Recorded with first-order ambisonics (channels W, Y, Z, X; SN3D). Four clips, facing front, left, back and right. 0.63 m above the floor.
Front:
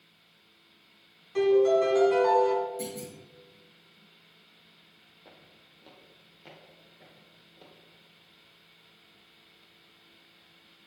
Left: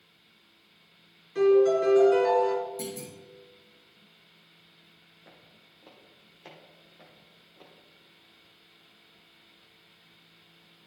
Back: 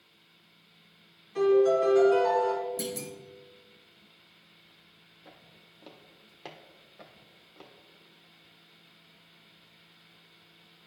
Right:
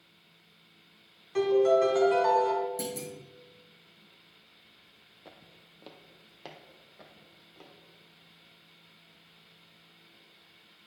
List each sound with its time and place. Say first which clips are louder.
1.4 s a piano: left 2 dB, even; 65° right, 3 m
2.8 s a clunk: right 1 dB, back 2 dB; 145° right, 2.0 m
5.2 s footsteps: right 3 dB, back 1 dB; 80° right, 1.2 m; by 7.7 s 155° right, 2.5 m